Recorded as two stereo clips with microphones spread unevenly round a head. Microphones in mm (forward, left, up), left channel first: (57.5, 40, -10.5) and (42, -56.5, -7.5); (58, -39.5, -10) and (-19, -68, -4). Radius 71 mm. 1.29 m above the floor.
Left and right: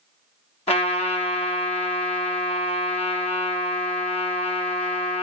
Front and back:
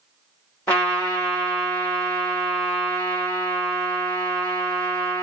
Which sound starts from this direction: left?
A trumpet, at 0.7 s.